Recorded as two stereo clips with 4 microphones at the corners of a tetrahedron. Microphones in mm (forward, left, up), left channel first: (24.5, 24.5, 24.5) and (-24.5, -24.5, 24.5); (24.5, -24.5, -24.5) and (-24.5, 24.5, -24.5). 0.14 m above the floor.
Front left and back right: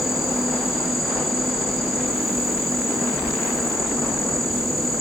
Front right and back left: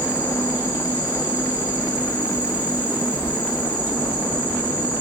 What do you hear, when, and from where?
0.0 s an insect: 145° left, 1.0 m